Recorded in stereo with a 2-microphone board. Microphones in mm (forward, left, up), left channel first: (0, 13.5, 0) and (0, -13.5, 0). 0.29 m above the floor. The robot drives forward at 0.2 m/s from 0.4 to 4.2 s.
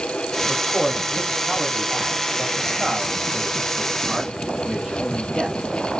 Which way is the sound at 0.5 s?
Centre (ahead or behind).